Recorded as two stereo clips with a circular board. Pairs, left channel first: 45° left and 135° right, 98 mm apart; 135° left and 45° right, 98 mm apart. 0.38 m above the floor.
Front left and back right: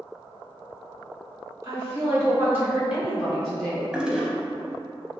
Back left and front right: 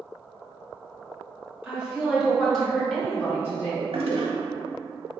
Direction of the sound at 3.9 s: 55° right.